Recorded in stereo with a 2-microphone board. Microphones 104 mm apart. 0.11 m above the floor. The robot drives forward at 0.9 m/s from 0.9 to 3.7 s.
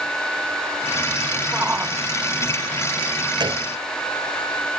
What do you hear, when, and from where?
1.5 s a shout: 15° right (ahead or behind)
3.4 s a gunshot: 50° right (ahead or behind); by 3.7 s 45° right (ahead or behind)